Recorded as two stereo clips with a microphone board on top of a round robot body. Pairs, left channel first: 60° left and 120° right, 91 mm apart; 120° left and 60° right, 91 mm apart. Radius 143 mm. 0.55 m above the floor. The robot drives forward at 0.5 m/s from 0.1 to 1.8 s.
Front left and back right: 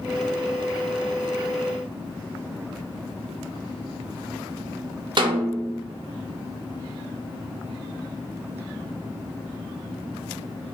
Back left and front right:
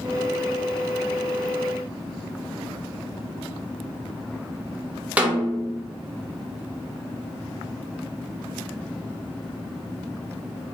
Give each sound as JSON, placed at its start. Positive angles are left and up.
{"t": 5.2, "sound": "a snare drum", "azimuth_deg": -135, "distance_m": 0.7}